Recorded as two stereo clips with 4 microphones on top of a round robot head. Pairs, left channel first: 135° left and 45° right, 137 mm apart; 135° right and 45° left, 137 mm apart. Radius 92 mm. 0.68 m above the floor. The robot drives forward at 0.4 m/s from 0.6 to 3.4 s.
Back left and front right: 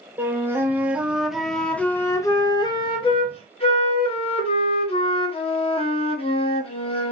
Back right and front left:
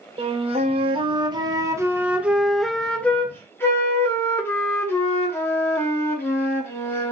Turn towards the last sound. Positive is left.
turn(degrees=155)